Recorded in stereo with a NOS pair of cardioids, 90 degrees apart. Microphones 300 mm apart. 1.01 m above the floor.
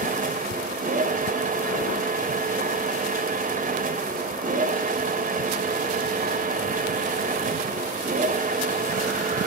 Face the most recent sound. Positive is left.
turn(degrees=-30)